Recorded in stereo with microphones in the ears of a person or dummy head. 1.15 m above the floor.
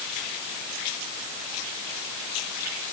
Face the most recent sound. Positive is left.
No sound to turn to.